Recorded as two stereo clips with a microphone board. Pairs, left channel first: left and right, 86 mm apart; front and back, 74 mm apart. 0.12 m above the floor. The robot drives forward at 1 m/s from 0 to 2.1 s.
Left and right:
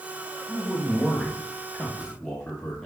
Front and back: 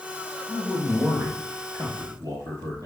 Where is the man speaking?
170° left, 1.4 m; by 2.9 s 175° left, 2.5 m.